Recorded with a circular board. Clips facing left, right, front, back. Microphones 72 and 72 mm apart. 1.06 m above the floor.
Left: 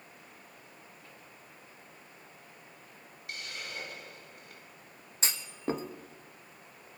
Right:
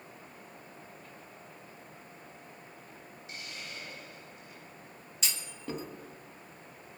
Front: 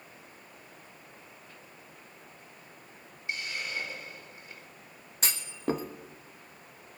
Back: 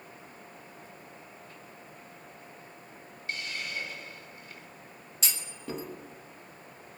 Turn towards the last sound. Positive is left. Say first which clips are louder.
# left 6 dB, front 7 dB
turn(degrees=40)